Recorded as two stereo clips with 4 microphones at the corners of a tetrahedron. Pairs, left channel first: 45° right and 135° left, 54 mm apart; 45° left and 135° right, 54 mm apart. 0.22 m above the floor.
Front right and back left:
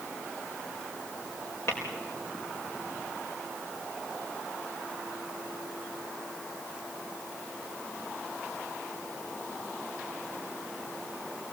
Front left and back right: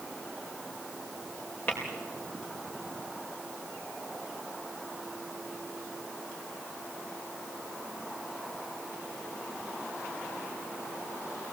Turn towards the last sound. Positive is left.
turn(degrees=-10)